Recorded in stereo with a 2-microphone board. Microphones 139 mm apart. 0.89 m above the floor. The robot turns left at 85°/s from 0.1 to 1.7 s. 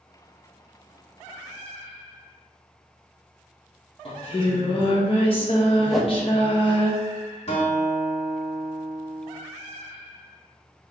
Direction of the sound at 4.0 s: 40° left (ahead or behind).